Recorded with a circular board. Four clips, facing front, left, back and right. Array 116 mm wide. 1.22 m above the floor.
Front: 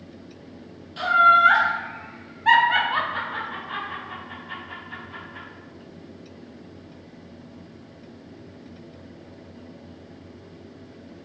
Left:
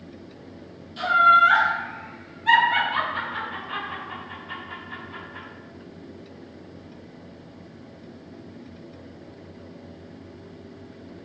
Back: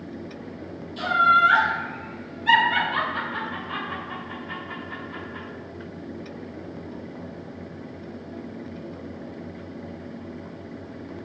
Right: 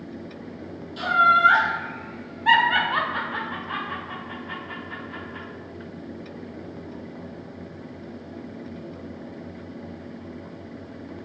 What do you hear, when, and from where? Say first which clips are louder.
1.0 s laughter: left 2 dB, front 2 dB; straight ahead, 1.5 m; by 5.5 s 115° right, 1.6 m